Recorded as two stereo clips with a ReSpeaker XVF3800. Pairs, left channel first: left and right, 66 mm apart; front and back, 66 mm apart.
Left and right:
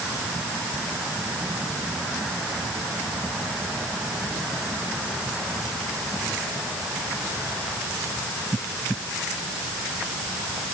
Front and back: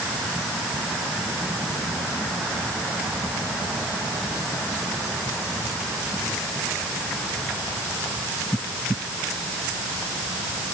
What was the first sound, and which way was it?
Only background noise.